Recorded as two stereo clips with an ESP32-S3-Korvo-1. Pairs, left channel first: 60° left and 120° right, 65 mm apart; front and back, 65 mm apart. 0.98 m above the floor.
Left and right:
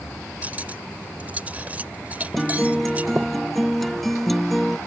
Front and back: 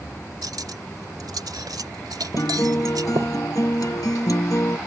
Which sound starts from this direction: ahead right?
A guitar, at 2.4 s.